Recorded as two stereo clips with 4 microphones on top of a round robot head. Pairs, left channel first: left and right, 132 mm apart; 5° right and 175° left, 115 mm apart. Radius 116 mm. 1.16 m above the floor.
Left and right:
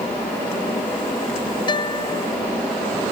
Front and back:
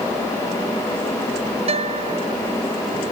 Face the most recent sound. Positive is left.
turn(degrees=145)